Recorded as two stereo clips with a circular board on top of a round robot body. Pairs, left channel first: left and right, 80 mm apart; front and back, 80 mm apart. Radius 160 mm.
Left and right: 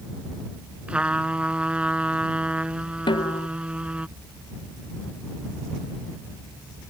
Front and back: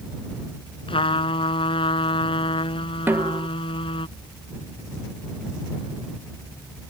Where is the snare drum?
115° left.